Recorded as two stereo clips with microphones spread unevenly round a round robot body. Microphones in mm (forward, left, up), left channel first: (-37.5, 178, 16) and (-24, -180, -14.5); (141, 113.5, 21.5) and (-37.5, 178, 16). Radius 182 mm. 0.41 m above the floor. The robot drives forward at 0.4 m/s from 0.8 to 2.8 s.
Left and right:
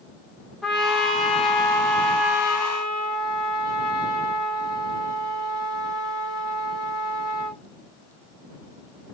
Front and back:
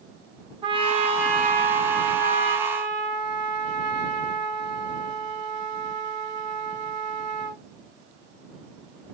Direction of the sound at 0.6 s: 170° right.